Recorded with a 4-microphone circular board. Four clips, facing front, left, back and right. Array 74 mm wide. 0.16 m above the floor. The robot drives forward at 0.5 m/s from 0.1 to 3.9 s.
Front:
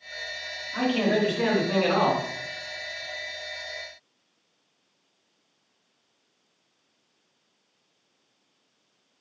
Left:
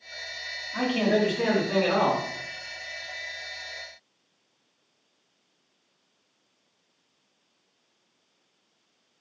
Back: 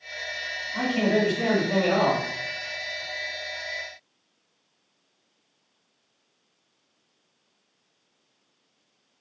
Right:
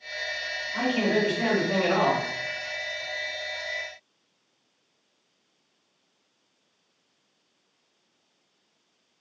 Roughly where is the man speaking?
Ahead.